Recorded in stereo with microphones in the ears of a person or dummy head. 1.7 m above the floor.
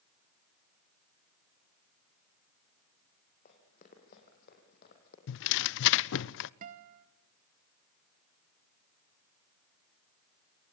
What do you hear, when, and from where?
3.5 s running footsteps: 40° left (ahead or behind), 6 m; by 5.2 s 45° left (ahead or behind), 4.5 m
5.3 s tearing paper: 65° left (ahead or behind), 0.5 m
6.6 s a guitar: 40° right (ahead or behind), 1.0 m